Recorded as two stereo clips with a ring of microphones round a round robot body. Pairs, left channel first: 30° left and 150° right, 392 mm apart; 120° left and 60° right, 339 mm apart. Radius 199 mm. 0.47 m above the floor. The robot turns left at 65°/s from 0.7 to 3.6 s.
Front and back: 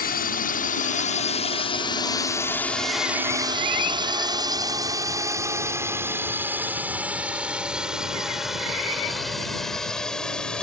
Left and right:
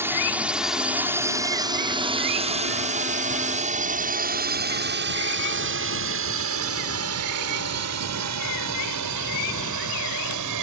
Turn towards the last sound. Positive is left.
turn(degrees=-55)